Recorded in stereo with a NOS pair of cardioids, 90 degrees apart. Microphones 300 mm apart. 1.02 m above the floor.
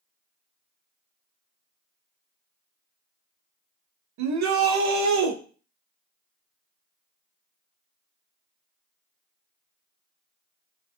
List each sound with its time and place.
4.2 s a shout: 65° right, 1.0 m